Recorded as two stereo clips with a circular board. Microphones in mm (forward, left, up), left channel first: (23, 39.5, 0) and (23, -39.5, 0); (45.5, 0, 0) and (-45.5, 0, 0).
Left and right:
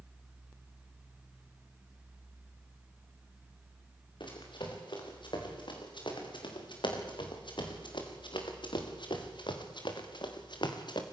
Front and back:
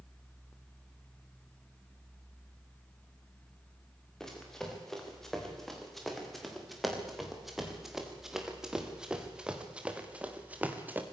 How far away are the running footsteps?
About 6.5 m.